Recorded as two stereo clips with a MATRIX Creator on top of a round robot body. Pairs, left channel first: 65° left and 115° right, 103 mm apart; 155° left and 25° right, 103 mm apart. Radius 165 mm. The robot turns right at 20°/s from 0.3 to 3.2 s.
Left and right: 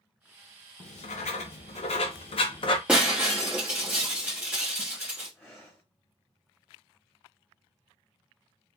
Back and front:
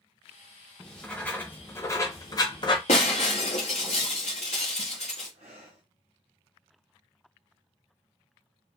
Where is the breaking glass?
170° left, 0.5 m; by 5.3 s 175° left, 0.5 m.